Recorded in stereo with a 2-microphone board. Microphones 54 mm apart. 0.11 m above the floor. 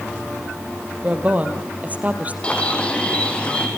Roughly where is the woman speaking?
Right.